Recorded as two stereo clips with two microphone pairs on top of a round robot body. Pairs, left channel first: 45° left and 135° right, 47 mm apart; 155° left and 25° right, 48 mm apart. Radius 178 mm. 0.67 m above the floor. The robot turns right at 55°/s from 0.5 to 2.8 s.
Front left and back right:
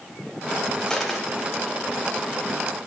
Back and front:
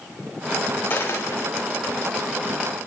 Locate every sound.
0.9 s a dropped coin: 120° left, 0.6 m; by 1.5 s 155° left, 0.6 m